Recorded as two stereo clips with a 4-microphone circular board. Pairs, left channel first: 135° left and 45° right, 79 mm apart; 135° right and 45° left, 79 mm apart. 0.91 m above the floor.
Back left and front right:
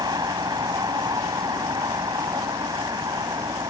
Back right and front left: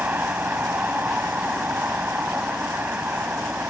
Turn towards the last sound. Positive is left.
turn(degrees=-25)